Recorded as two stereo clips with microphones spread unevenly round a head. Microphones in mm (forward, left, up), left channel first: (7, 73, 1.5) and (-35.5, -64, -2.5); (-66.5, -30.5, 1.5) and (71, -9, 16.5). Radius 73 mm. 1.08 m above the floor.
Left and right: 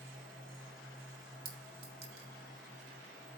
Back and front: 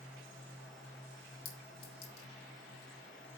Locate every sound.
1.4 s a clink: 160° right, 1.6 m